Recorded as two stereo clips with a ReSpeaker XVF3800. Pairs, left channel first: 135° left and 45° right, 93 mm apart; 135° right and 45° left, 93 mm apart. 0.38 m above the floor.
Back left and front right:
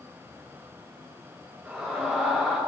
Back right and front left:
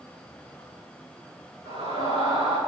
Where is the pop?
I don't hear a pop.